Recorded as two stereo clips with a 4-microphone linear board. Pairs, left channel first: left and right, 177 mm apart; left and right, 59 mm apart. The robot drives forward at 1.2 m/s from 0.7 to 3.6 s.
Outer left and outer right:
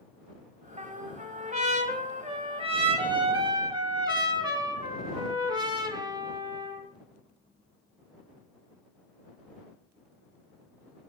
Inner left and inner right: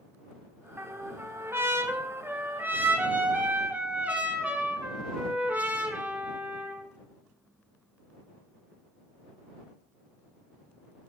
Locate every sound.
0.8 s a trumpet: 40° right (ahead or behind), 2.0 m; by 6.8 s 25° right (ahead or behind), 3 m